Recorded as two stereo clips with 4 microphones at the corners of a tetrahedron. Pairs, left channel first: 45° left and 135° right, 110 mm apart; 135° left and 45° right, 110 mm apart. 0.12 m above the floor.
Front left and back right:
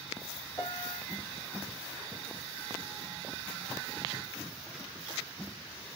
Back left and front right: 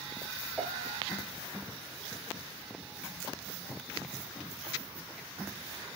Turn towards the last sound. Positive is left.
turn(degrees=40)